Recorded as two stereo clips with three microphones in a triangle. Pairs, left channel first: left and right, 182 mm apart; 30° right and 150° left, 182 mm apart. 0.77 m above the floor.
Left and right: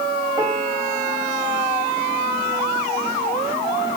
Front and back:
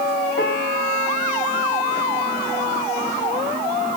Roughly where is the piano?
Ahead.